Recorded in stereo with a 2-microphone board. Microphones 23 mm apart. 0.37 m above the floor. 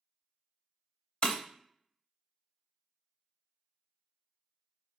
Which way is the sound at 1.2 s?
50° left (ahead or behind).